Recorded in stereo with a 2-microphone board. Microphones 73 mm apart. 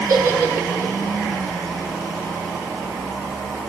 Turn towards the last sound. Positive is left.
turn(degrees=-45)  # may be behind; listen again after turning